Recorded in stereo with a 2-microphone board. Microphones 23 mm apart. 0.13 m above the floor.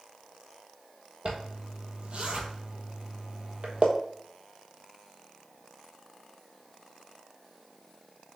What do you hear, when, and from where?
1.2 s a zipper: 50° right (ahead or behind), 0.7 m